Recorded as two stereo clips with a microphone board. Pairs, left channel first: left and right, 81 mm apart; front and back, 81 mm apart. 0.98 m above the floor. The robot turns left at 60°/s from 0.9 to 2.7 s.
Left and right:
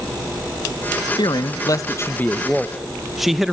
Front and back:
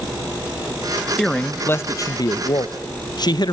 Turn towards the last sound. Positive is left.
turn(degrees=-5)